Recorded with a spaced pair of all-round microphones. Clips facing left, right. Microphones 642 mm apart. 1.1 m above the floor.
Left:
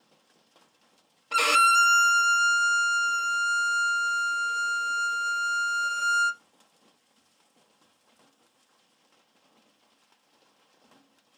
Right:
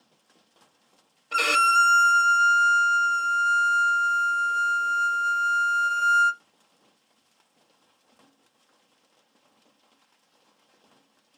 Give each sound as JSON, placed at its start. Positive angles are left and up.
{"t": 1.3, "sound": "a violin", "side_deg": 30, "distance_m": 0.6}